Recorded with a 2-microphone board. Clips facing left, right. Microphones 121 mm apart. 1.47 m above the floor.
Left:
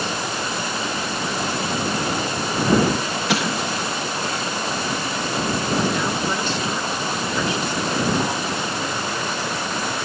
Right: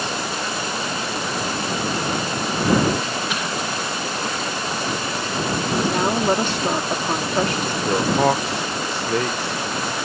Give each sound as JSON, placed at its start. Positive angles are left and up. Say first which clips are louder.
{"t": 3.3, "sound": "an explosion", "louder": "left 3 dB", "side_deg": 80}
{"t": 5.9, "sound": "a woman speaking", "louder": "right 4 dB", "side_deg": -60}
{"t": 7.8, "sound": "a man speaking", "louder": "right 6 dB", "side_deg": -75}